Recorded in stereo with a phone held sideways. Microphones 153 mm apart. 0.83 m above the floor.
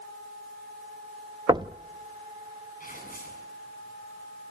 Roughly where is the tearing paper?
Left.